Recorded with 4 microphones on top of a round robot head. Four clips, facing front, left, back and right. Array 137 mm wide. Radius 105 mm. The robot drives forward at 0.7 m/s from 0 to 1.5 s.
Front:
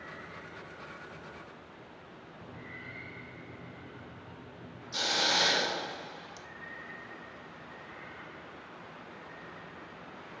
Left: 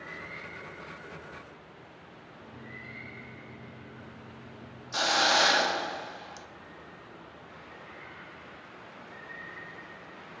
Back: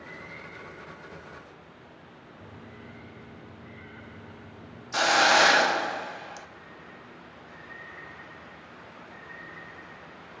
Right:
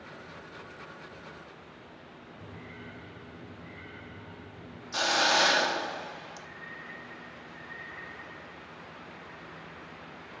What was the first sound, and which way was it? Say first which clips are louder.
A microwave: even, back 1 dB; 135° right.